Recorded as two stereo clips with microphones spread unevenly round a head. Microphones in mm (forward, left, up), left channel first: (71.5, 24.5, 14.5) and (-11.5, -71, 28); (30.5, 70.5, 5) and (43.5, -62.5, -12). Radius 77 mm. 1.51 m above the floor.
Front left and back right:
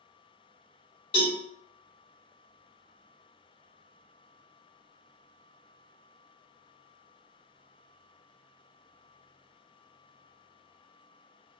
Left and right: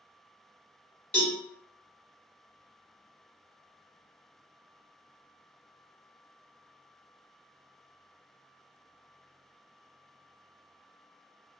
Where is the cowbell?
25° left, 1.4 m.